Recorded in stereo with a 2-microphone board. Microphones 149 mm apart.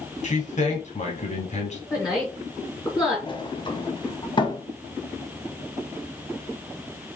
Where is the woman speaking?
25° left (ahead or behind), 2.5 m.